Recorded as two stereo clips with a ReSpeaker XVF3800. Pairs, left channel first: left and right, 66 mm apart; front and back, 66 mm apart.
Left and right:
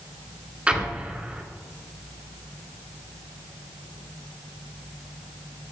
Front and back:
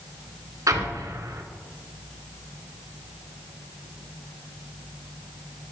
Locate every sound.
0.7 s an explosion: 160° right, 1.8 m